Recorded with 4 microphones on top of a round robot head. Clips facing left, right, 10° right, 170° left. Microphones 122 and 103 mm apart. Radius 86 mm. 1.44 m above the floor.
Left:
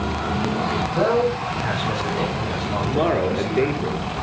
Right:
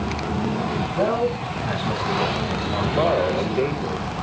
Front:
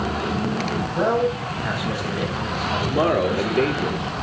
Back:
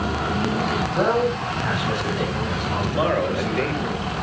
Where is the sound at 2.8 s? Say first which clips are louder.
Even, front 2 dB; 40° left, 3.5 m.